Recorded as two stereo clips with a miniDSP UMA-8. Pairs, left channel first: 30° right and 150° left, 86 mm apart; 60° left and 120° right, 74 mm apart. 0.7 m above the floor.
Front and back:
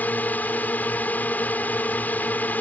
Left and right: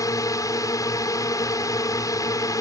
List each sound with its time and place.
0.0 s a drone: 35° left